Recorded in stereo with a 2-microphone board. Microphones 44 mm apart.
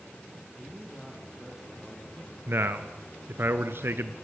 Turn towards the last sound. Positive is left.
turn(degrees=-60)  # may be behind; listen again after turning